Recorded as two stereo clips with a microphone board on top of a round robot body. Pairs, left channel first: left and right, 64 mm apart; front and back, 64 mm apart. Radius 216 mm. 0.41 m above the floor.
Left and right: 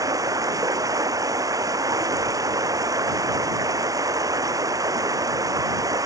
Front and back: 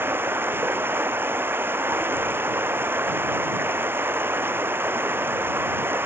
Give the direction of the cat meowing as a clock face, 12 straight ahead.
No cat meowing in this recording.